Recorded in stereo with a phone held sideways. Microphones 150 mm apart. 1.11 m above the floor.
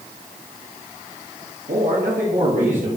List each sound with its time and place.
1.7 s a man speaking: 75° right (ahead or behind), 1.3 m; by 2.9 s 60° right (ahead or behind), 2.5 m